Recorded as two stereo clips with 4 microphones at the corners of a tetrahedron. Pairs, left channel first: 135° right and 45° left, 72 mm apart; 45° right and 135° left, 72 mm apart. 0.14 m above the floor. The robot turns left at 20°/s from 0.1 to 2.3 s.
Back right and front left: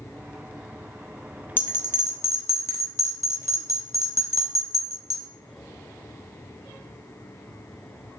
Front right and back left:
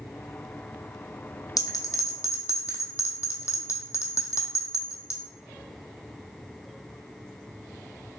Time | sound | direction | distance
1.6 | a bell | 75° right | 0.6 m